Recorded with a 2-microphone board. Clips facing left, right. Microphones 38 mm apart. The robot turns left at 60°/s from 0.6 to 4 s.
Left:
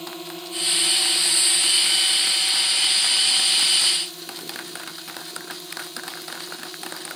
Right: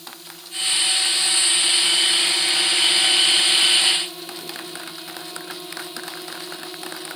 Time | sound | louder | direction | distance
0.0 | a drone | left 6 dB | 50° left | ?